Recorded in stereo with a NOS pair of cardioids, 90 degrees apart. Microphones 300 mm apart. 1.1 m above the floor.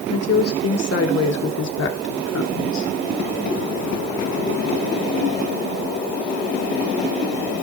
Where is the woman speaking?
50° left, 3 m; by 2.9 s 70° left, 1.9 m.